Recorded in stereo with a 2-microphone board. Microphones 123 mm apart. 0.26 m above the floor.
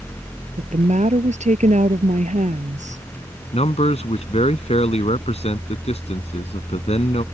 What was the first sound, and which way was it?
A woman speaking, 75° right (ahead or behind).